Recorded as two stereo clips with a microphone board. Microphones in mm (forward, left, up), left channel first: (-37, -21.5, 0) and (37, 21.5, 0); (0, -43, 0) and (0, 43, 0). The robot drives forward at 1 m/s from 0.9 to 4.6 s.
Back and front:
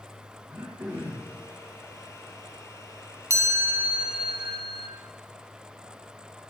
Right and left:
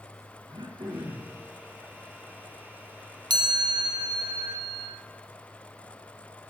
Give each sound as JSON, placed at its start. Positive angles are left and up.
{"t": 0.5, "sound": "throat clearing", "azimuth_deg": 85, "distance_m": 3.5}
{"t": 3.3, "sound": "a chime", "azimuth_deg": 75, "distance_m": 1.7}